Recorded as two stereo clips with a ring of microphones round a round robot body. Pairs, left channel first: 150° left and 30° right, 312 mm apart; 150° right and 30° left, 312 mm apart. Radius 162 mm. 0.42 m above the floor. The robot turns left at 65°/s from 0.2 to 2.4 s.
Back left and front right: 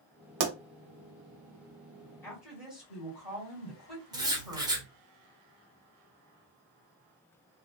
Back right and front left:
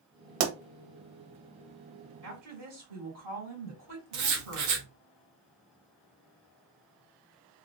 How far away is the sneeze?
No sneeze in this recording.